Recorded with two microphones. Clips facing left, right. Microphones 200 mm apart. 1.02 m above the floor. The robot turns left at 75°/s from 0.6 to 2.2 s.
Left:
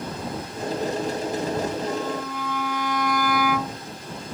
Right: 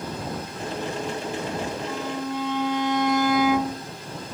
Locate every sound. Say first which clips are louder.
1.9 s a violin: left 1 dB; centre (ahead or behind); by 3.9 s 25° right (ahead or behind)